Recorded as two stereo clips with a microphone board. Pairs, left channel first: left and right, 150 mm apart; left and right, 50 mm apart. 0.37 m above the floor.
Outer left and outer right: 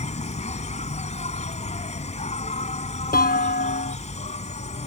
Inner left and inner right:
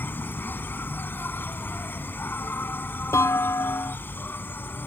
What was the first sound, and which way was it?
An insect, 50° left (ahead or behind).